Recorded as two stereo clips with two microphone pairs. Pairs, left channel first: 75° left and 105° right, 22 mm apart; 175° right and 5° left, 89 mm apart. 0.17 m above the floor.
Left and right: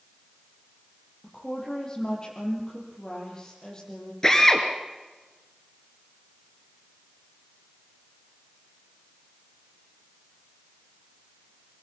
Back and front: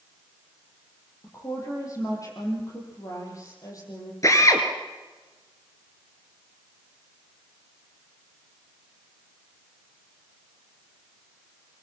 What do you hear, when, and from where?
1.2 s a woman speaking: 130° left, 6.5 m
4.2 s a drill: 135° left, 3 m